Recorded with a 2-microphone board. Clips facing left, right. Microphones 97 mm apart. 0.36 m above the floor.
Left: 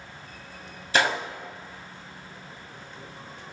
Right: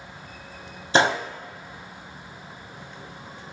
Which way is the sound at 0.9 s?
30° right (ahead or behind).